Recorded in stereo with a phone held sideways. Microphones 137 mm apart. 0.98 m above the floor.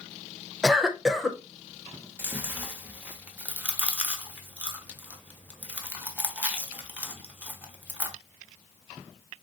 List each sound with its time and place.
0.6 s a cough: 5° right (ahead or behind), 0.6 m
2.2 s chewing: 10° right (ahead or behind), 0.6 m